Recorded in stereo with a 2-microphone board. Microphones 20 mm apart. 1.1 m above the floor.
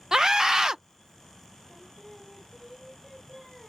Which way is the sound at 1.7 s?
15° left (ahead or behind).